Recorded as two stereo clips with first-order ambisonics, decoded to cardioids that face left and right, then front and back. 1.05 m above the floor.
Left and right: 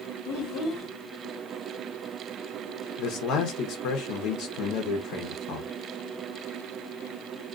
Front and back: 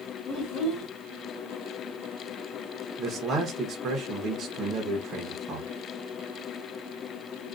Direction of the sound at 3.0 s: 120° left.